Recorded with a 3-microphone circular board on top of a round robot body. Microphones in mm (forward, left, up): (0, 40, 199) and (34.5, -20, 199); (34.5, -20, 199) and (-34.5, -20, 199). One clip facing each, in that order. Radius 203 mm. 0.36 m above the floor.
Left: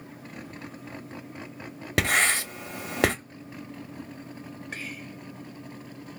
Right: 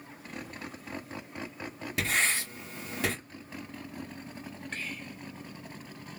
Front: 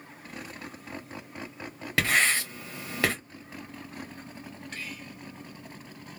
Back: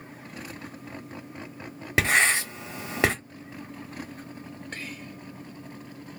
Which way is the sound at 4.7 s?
Straight behind.